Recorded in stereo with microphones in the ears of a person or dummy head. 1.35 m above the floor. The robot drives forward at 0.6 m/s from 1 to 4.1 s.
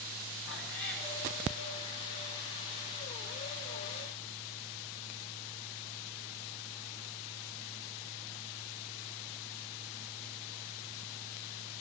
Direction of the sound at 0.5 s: 60° left (ahead or behind).